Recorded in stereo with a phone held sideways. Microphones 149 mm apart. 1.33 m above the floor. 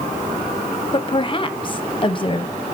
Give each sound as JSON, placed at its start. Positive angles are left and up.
{"t": 0.9, "sound": "a woman speaking", "side_deg": 35, "distance_m": 0.8}